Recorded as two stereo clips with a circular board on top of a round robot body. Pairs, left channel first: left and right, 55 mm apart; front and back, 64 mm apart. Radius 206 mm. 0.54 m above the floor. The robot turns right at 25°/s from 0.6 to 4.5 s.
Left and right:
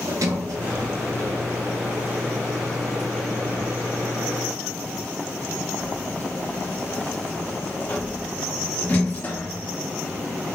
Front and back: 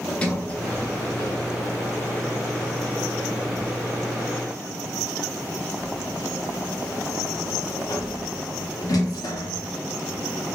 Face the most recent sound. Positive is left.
turn(degrees=25)